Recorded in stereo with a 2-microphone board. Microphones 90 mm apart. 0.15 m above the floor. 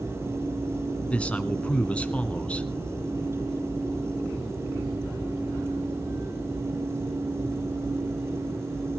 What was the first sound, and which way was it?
A man speaking, 15° left (ahead or behind).